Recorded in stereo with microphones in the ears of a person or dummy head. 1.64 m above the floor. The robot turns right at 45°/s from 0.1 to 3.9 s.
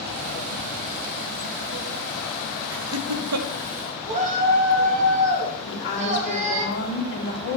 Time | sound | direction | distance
2.7 | laughter | 70° right (ahead or behind) | 1.3 m
4.1 | a shout | 40° right (ahead or behind) | 3 m
5.7 | a woman speaking | 60° left (ahead or behind) | 3 m